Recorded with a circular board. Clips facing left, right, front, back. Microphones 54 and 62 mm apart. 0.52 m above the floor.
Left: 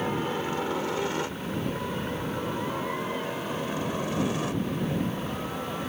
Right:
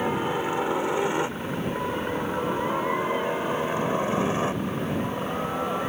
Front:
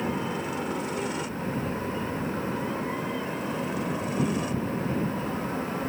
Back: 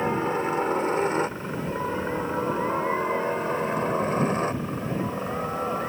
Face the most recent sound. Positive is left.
turn(degrees=-140)